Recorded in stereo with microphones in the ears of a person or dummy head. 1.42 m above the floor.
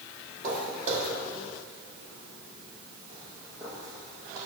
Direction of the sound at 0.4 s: 40° right (ahead or behind).